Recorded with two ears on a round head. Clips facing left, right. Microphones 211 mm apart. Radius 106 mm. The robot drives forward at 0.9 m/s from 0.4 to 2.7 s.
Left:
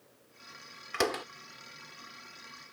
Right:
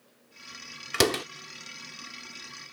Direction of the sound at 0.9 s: 50° right (ahead or behind).